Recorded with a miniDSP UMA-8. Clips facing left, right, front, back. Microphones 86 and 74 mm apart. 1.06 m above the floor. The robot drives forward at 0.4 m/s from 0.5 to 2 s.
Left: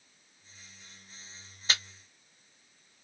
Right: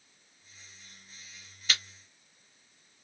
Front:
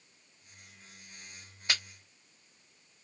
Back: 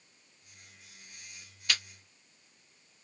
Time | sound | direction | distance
1.7 | chewing | 50° left | 0.9 m